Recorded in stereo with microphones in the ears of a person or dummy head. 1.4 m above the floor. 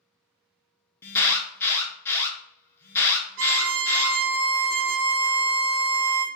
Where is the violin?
65° right (ahead or behind), 0.6 m.